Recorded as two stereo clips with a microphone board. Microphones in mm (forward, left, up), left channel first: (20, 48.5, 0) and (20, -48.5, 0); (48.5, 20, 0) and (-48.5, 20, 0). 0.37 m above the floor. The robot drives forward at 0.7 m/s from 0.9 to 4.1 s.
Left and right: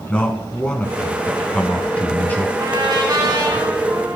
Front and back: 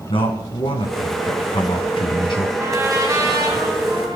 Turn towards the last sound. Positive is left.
turn(degrees=-140)